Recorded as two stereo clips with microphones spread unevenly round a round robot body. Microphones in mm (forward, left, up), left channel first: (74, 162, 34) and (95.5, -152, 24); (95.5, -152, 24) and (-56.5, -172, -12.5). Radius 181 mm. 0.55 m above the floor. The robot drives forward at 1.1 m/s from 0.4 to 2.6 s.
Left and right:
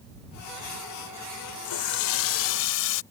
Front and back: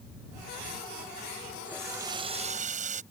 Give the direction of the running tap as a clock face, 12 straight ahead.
9 o'clock.